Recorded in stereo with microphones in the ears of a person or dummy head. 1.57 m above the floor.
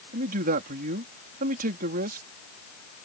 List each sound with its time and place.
0.1 s a man speaking: 45° right (ahead or behind)